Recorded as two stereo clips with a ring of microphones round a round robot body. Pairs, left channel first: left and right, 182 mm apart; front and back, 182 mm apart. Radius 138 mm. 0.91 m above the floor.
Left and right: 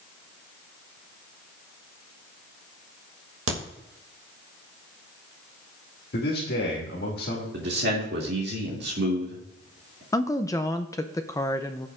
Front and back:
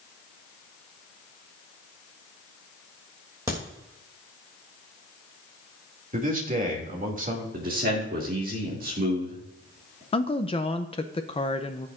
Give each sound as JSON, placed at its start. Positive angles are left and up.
{"t": 3.5, "sound": "a crack", "azimuth_deg": -100, "distance_m": 2.5}
{"t": 6.1, "sound": "a man speaking", "azimuth_deg": 135, "distance_m": 2.5}
{"t": 7.5, "sound": "a man speaking", "azimuth_deg": -130, "distance_m": 2.5}
{"t": 10.1, "sound": "a woman speaking", "azimuth_deg": 30, "distance_m": 0.7}